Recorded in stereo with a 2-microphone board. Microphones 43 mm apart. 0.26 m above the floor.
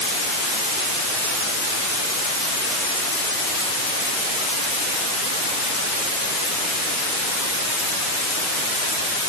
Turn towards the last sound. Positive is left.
No sound to turn to.